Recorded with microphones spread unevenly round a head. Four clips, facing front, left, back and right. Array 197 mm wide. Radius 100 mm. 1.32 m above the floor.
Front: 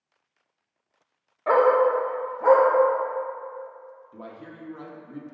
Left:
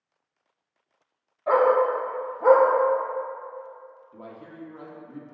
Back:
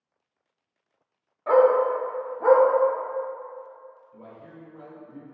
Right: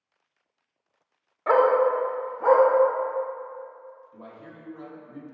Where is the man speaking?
25° left, 0.9 m.